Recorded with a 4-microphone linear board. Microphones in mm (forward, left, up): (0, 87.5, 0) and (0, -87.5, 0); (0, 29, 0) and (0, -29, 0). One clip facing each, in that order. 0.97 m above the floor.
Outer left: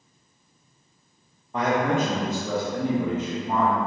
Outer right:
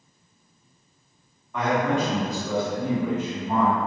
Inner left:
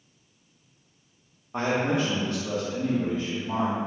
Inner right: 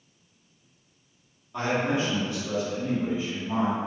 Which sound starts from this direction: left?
A man speaking, at 1.5 s.